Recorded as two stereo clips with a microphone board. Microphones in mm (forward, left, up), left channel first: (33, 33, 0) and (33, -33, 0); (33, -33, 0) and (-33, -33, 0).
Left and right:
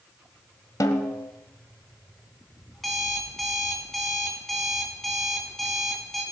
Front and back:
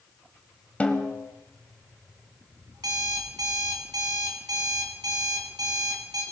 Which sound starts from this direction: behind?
An alarm clock, at 2.7 s.